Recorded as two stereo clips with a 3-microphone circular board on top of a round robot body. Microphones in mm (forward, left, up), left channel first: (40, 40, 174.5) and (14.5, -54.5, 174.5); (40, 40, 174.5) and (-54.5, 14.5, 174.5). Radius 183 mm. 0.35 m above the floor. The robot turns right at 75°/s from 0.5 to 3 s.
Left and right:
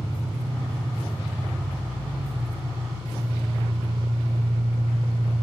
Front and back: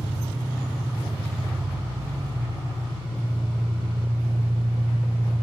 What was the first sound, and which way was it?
An engine running, 80° left.